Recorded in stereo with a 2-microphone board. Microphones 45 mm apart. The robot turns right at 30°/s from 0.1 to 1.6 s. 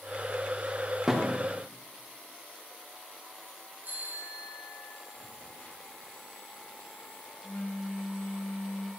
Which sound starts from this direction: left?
A phone buzzing, at 5.2 s.